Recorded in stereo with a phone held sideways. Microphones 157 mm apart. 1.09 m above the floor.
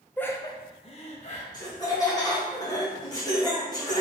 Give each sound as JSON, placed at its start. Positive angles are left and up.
{"t": 0.2, "sound": "laughter", "side_deg": 10, "distance_m": 0.5}
{"t": 1.5, "sound": "laughter", "side_deg": 25, "distance_m": 1.5}